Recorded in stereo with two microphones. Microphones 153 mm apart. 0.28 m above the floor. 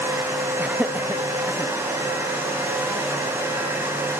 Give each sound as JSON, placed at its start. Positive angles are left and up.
{"t": 0.6, "sound": "laughter", "side_deg": -10, "distance_m": 1.8}